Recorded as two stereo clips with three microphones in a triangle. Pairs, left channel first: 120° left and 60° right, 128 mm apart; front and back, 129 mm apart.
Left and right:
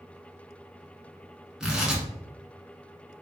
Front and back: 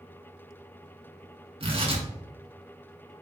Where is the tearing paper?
145° right, 1.1 m.